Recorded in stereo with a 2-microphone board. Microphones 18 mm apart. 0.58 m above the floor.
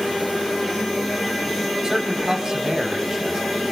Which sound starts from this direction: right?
A man speaking, at 1.8 s.